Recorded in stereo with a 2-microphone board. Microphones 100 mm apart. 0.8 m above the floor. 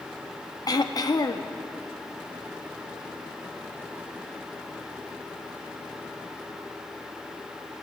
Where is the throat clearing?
40° left (ahead or behind), 0.5 m.